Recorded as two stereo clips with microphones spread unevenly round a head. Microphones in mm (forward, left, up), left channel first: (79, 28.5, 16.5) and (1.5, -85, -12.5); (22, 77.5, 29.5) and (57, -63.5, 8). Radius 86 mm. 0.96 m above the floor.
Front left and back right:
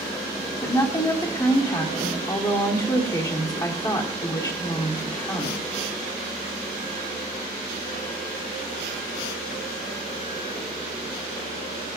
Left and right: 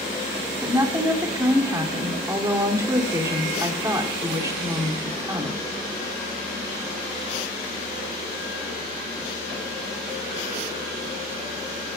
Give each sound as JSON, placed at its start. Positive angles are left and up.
{"t": 0.6, "sound": "a woman speaking", "azimuth_deg": -10, "distance_m": 2.5}